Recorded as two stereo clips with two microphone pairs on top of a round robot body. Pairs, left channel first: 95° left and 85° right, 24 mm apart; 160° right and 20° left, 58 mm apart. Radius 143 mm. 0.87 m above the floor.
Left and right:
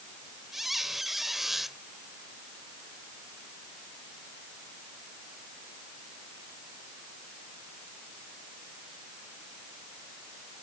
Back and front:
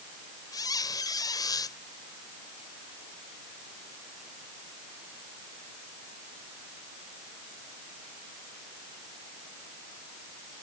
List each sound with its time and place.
0.5 s a squeak: 165° right